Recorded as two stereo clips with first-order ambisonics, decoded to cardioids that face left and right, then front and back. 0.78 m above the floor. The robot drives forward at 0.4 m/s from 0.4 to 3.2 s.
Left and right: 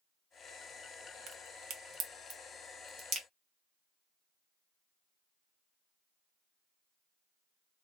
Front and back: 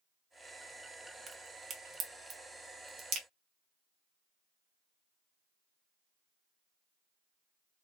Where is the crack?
110° right, 1.2 m; by 3.3 s 140° right, 1.6 m.